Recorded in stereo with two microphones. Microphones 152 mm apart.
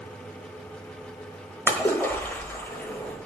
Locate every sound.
1.7 s a splash: 10° left (ahead or behind), 1.2 m